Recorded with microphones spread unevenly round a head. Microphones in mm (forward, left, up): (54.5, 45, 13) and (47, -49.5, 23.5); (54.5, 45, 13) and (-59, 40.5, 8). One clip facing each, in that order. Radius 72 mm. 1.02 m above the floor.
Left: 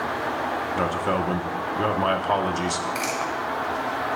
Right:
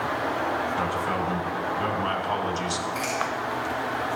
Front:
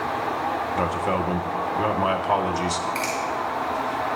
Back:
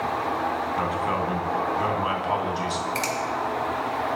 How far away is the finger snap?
About 4 m.